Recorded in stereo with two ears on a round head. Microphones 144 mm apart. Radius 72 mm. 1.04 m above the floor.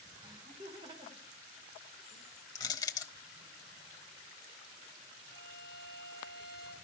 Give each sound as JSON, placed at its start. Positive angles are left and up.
{"t": 0.2, "sound": "laughter", "side_deg": -25, "distance_m": 4.0}
{"t": 2.5, "sound": "crushing", "side_deg": 25, "distance_m": 1.2}
{"t": 5.2, "sound": "a violin", "side_deg": -70, "distance_m": 5.0}